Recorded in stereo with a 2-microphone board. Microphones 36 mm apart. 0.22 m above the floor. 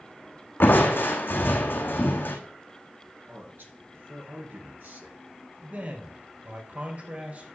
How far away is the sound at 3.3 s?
About 3 m.